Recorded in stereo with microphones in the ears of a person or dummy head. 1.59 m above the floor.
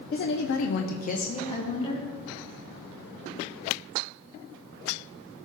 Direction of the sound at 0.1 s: 45° left (ahead or behind).